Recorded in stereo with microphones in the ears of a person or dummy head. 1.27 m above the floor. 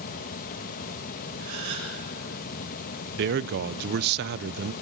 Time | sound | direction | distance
0.0 | a fan | 45° left (ahead or behind) | 0.9 m
1.4 | a gasp | 70° right (ahead or behind) | 6.5 m
3.2 | a man speaking | 55° right (ahead or behind) | 0.5 m